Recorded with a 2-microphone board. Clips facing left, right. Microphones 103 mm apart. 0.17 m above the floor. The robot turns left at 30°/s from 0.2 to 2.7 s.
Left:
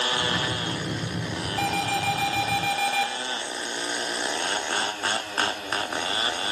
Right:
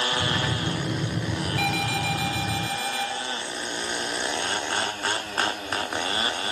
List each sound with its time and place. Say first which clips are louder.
1.6 s an alarm: left 3 dB; 140° left, 4 m; by 3.1 s 105° left, 4 m